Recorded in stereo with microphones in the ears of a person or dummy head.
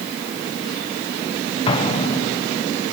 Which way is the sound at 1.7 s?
25° left (ahead or behind).